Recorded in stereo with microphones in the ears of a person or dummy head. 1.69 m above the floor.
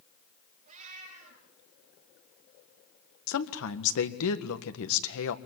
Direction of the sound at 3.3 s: 75° left (ahead or behind).